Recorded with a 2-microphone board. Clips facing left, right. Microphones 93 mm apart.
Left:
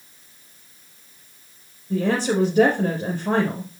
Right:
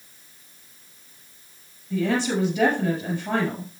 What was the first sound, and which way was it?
A woman speaking, 40° left (ahead or behind).